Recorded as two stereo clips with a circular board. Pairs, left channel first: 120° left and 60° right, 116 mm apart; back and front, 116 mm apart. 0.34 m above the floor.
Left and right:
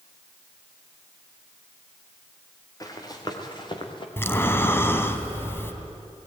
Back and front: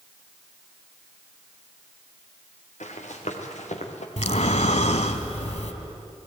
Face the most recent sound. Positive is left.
turn(degrees=-170)